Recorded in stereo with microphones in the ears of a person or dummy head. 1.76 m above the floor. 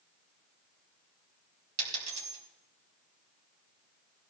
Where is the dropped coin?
45° right (ahead or behind), 5 m.